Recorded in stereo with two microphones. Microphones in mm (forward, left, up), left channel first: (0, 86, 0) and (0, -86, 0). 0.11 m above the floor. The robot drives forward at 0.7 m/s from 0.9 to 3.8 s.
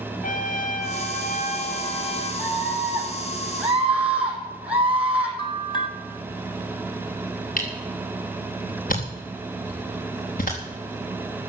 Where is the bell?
30° left (ahead or behind), 1.3 m.